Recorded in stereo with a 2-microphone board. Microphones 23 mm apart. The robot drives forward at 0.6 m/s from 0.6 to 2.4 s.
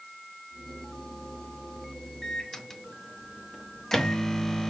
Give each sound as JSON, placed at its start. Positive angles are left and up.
{"t": 2.2, "sound": "a microwave", "side_deg": 20, "distance_m": 0.6}